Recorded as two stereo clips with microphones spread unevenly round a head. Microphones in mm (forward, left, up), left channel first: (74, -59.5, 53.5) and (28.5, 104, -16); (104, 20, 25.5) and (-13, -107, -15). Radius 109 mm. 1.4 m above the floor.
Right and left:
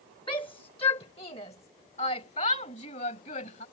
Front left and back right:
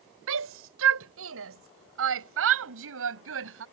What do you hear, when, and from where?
0.3 s a shout: 145° right; by 3.6 s 135° right